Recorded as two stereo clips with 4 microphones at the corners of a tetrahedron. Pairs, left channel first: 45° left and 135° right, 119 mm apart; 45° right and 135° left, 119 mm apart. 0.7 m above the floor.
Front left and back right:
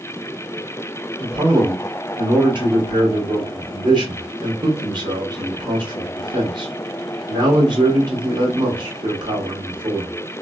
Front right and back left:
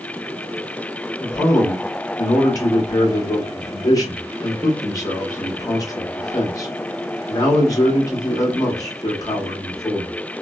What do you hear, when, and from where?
1.2 s a man speaking: 95° right, 1.2 m